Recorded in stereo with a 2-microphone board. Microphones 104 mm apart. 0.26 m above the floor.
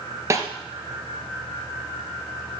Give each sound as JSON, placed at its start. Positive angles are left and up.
{"t": 0.3, "sound": "a snare drum", "side_deg": -30, "distance_m": 2.5}